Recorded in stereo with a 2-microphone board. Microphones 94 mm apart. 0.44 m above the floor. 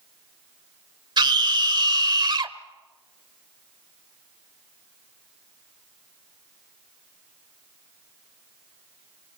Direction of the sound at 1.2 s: 55° right (ahead or behind).